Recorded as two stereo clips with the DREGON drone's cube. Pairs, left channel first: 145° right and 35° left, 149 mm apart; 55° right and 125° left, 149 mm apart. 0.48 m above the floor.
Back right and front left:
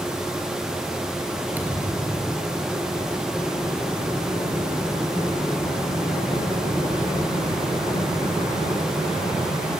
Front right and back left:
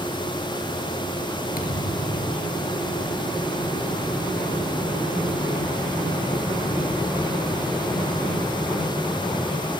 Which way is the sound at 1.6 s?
45° right.